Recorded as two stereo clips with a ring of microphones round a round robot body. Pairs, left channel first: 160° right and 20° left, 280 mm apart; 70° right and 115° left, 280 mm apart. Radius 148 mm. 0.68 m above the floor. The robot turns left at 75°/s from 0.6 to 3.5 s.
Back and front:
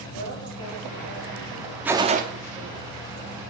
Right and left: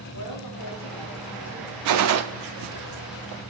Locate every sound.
0.1 s a woman speaking: 100° right, 3 m; by 2.9 s 95° left, 3 m
1.9 s a gunshot: 110° left, 0.8 m; by 2.2 s 80° left, 0.8 m